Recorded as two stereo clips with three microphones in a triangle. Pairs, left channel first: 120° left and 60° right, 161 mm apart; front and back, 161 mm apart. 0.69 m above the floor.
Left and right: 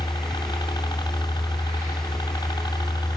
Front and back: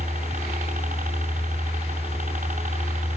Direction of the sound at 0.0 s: 175° left.